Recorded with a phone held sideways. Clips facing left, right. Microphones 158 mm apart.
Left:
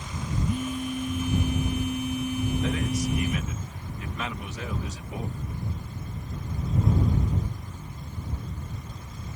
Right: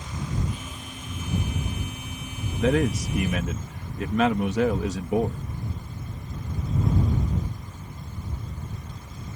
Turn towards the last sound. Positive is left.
turn(degrees=-75)  # may be behind; listen again after turning